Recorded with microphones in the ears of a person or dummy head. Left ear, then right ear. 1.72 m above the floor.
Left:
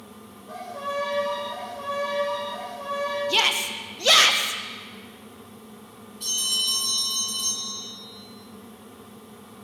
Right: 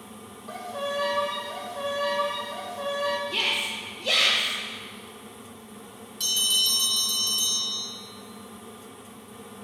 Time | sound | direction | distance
0.5 | a violin | 55° right (ahead or behind) | 1.5 m
3.3 | a shout | 55° left (ahead or behind) | 0.5 m
6.2 | a bell | 55° right (ahead or behind) | 2 m